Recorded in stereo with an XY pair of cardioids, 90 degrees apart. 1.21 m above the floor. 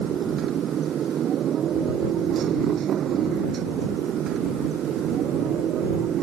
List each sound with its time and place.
0.0 s a motorcycle: 65° right; by 6.2 s 75° right